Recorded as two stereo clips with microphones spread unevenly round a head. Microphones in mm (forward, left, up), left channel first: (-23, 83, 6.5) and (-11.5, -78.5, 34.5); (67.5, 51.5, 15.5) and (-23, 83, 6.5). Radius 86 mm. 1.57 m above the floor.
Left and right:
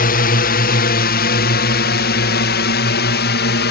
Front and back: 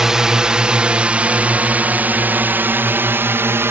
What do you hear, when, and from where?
0.0 s a drone: 80° left; by 3.7 s 100° left